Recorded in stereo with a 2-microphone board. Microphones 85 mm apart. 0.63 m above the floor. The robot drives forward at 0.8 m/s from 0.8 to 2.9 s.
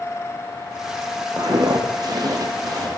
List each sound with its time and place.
1.4 s footsteps: 55° right (ahead or behind), 1.7 m; by 2.9 s 45° right (ahead or behind), 1.5 m